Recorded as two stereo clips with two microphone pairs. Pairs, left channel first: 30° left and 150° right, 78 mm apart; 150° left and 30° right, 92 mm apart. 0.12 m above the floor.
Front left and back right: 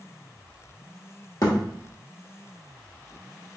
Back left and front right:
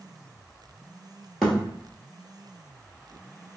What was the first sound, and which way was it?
A thud, 60° left.